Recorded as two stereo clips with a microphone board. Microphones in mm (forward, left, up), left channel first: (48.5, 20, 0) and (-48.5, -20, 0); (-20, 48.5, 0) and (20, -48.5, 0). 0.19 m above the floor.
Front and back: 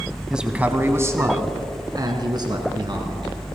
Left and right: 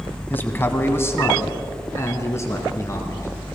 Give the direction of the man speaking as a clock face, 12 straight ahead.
8 o'clock.